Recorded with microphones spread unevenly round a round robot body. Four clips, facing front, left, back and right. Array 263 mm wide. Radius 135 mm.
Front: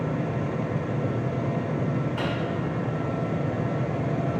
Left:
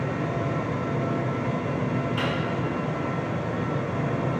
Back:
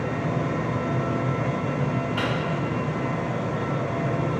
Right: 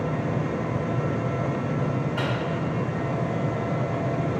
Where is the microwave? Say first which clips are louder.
Even, back 2 dB; 175° left, 1.8 m.